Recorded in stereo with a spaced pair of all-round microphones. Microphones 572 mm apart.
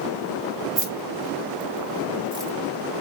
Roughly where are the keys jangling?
Right.